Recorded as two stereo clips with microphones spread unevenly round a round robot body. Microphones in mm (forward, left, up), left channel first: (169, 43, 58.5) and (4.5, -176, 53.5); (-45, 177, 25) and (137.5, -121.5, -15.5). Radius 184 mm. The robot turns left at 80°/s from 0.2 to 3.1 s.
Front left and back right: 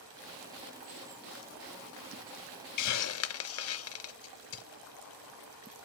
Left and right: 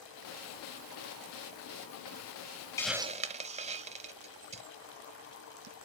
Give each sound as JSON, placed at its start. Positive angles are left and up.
{"t": 2.8, "sound": "a hiss", "azimuth_deg": 40, "distance_m": 0.6}